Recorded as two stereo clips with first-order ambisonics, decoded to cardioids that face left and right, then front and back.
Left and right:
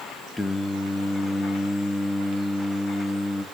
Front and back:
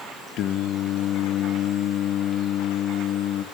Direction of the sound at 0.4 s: 10° left.